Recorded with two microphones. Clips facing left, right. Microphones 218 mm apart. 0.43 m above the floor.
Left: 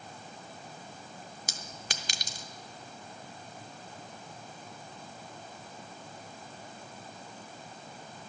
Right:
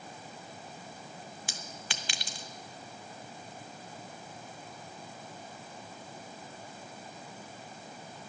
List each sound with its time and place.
1.5 s a clink: 40° left (ahead or behind), 0.7 m